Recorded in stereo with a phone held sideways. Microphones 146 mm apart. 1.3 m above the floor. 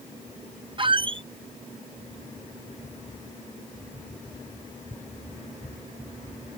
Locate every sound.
0.8 s a squeak: 35° right (ahead or behind)